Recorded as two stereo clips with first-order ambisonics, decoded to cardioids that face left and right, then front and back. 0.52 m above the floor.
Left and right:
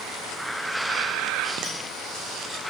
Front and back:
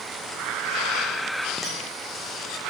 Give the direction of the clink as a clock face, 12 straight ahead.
7 o'clock.